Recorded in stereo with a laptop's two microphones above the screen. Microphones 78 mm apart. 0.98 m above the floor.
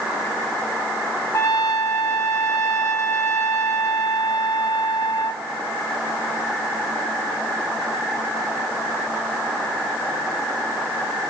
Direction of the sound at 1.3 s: 45° left (ahead or behind).